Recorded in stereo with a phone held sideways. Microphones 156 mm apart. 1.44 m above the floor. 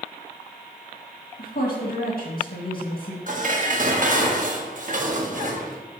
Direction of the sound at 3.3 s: 55° right (ahead or behind).